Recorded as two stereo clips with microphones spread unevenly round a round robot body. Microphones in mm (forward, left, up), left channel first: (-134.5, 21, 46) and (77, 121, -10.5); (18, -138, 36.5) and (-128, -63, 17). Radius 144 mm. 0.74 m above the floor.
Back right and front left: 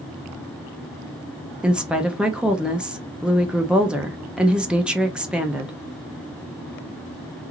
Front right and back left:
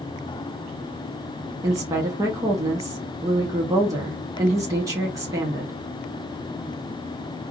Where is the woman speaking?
95° left, 0.5 m.